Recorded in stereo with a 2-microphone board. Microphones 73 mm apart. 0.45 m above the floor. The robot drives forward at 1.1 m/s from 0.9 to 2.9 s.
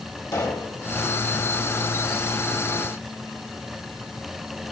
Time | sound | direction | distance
0.3 | a pop | 55° left (ahead or behind) | 2.5 m